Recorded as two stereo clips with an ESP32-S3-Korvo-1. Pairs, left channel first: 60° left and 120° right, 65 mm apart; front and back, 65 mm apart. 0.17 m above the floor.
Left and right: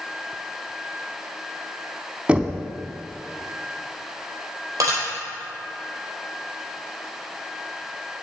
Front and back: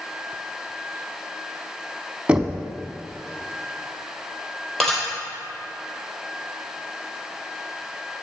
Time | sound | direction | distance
2.3 | knocking | 150° right | 0.7 m
4.8 | dishes clattering | 85° right | 3.5 m